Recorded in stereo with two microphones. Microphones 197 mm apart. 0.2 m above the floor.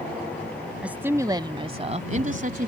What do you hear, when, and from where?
0.8 s a woman speaking: 5° right (ahead or behind); by 2.7 s 50° right (ahead or behind)